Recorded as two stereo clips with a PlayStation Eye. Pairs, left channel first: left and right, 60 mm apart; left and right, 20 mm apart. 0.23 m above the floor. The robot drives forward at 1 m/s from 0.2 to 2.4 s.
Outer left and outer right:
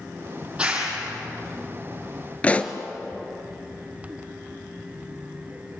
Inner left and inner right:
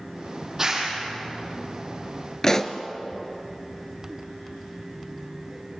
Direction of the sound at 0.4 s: 20° right (ahead or behind).